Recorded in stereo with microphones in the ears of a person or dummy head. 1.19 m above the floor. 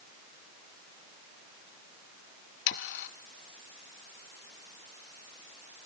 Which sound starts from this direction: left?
Sawing, at 2.7 s.